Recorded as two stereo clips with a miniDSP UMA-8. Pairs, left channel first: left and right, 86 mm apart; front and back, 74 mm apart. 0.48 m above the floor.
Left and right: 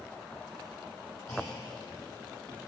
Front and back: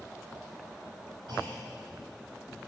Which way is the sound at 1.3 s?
170° left.